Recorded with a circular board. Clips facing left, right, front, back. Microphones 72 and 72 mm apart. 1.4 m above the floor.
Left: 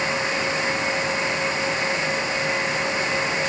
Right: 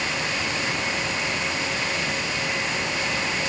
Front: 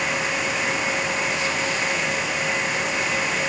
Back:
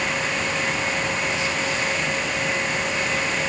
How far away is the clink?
I don't hear a clink.